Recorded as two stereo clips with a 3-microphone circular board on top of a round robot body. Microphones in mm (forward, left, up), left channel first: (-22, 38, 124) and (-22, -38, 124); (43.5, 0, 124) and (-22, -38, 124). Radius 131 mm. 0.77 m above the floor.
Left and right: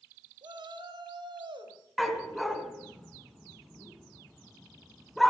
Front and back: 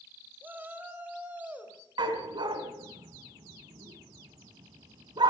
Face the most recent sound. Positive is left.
turn(degrees=180)